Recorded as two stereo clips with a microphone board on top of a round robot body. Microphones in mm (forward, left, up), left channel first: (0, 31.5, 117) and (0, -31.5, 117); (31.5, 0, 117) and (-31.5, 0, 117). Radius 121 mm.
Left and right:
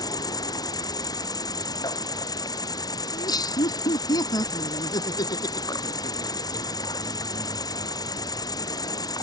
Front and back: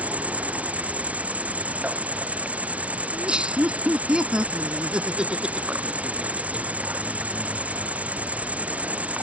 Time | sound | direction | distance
0.0 | an insect | 110° left | ?
3.1 | laughter | 105° left | ?